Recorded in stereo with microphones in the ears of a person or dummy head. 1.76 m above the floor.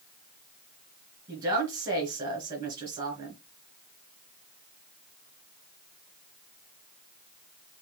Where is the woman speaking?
20° right (ahead or behind), 2.5 m.